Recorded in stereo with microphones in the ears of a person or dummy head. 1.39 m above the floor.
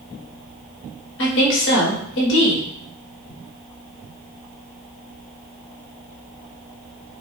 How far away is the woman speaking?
About 1.3 m.